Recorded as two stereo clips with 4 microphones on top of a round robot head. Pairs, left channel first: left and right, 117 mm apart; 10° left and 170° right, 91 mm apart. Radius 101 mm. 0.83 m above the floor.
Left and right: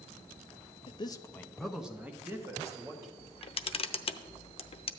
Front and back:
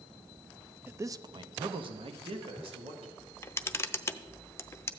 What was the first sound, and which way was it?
A man speaking, 125° left.